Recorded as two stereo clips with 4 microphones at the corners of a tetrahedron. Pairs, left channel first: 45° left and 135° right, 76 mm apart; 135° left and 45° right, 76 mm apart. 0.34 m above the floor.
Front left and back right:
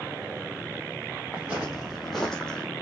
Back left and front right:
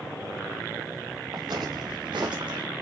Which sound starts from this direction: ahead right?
Footsteps, at 1.3 s.